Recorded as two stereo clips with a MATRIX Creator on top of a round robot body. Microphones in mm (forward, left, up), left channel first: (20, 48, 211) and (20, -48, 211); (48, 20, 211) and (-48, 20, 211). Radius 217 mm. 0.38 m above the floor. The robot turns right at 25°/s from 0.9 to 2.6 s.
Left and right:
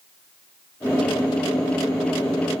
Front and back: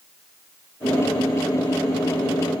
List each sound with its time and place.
Only background noise.